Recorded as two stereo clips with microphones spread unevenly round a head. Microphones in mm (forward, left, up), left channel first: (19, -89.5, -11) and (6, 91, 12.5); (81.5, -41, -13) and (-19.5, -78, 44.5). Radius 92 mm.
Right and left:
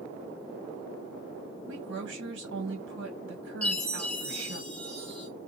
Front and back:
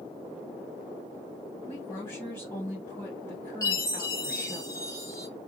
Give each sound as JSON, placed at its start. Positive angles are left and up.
{"t": 1.7, "sound": "a woman speaking", "azimuth_deg": 80, "distance_m": 1.6}
{"t": 3.6, "sound": "a chime", "azimuth_deg": -5, "distance_m": 1.6}